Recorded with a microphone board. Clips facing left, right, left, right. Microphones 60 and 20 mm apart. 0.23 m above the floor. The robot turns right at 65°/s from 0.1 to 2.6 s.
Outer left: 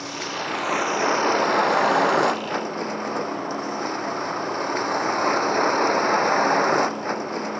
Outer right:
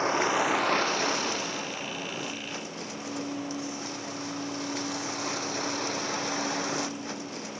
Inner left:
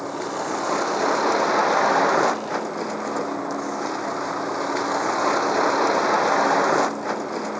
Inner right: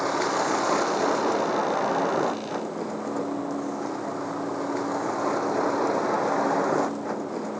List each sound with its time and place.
0.0 s a vehicle: 35° right; by 7.6 s 130° left